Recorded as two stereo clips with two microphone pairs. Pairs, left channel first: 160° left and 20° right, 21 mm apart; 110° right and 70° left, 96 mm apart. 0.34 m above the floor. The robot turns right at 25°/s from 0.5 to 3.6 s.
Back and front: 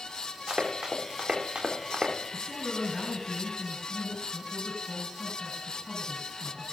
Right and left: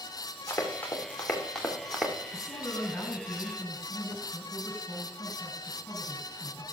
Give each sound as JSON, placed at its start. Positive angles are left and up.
{"t": 0.5, "sound": "running footsteps", "azimuth_deg": -50, "distance_m": 3.5}
{"t": 2.3, "sound": "a man speaking", "azimuth_deg": 160, "distance_m": 3.5}